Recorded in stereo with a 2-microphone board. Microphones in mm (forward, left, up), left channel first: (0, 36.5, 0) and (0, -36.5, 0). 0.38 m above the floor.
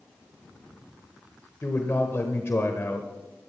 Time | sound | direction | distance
1.6 | a man speaking | 35° left (ahead or behind) | 1.1 m